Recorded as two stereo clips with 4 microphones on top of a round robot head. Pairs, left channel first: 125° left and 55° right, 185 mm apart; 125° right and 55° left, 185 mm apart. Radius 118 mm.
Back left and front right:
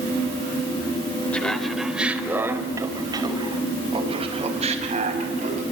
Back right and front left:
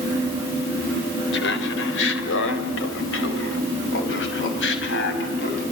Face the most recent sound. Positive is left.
turn(degrees=-105)